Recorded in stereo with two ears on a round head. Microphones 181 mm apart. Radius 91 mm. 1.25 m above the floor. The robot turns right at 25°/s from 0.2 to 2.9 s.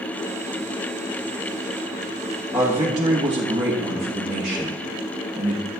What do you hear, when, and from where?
2.5 s a man speaking: 10° right (ahead or behind), 1.5 m; by 5.7 s 20° right (ahead or behind), 1.5 m